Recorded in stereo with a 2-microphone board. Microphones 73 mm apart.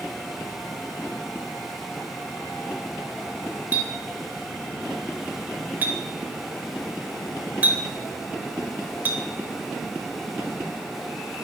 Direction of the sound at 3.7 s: 25° right (ahead or behind).